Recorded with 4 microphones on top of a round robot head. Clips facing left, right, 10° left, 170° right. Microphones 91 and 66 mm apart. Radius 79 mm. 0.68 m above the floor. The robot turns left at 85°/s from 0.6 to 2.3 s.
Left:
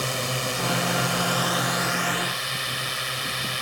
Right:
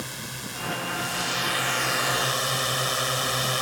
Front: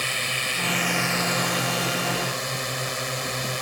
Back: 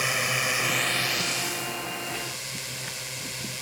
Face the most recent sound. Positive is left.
turn(degrees=-35)